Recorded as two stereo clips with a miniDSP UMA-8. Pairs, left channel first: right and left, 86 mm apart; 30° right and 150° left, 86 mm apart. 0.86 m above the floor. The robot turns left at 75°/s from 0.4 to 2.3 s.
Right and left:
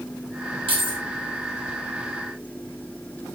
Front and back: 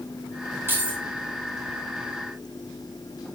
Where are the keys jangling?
90° left, 1.9 m; by 1.0 s 65° left, 1.9 m.